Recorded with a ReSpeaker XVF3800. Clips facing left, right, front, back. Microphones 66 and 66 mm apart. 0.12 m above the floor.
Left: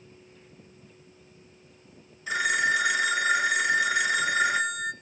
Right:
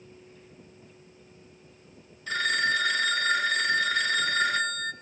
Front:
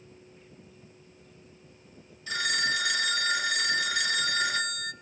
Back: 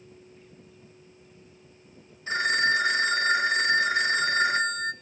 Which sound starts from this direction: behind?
A phone ringing, at 2.3 s.